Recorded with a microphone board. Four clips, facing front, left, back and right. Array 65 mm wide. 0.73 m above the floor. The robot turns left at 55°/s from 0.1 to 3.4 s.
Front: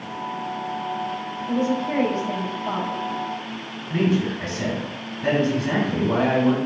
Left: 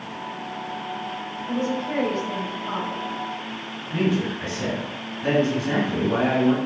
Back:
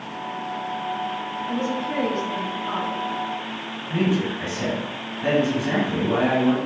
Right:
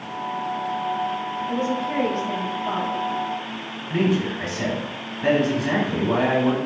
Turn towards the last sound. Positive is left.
turn(degrees=-105)